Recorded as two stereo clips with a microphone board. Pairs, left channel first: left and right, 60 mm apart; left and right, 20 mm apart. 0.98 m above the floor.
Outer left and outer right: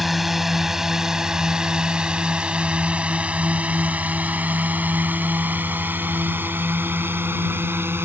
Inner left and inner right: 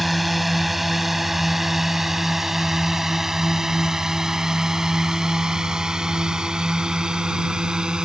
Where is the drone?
5° right (ahead or behind); by 8.1 s 40° right (ahead or behind).